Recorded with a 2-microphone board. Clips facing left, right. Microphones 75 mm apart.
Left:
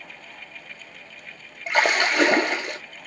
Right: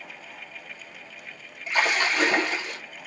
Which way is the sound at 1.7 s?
80° left.